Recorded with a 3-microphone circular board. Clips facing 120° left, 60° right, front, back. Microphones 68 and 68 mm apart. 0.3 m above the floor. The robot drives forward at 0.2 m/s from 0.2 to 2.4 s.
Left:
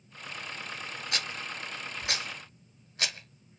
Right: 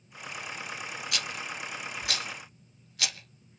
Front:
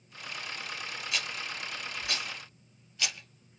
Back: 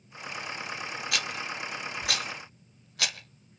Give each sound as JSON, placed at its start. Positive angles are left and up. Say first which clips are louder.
{"t": 1.1, "sound": "a rattle", "louder": "left 1 dB, back 3 dB", "azimuth_deg": 170, "distance_m": 1.1}